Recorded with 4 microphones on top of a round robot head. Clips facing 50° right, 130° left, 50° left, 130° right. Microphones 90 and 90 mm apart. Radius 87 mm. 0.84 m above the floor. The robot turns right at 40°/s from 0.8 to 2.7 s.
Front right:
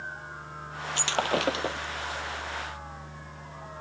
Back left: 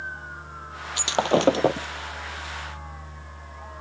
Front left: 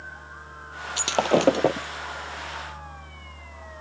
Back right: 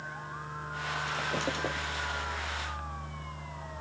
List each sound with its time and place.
1.0 s breaking glass: 55° left; by 1.9 s 90° left